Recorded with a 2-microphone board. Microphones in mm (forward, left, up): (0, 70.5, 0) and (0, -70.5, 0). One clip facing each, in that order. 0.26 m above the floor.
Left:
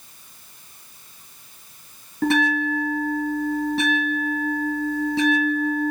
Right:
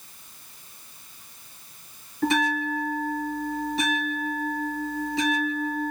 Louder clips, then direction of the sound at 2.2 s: Left 4 dB; 65° left (ahead or behind).